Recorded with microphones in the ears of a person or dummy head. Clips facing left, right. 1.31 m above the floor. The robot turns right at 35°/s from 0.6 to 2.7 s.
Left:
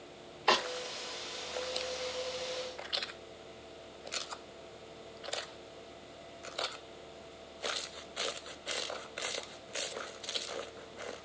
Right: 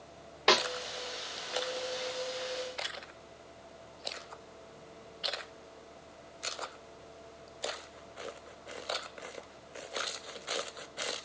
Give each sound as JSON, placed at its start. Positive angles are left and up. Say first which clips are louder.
{"t": 0.5, "sound": "a snare drum", "louder": "right 3 dB", "side_deg": -35, "distance_m": 1.3}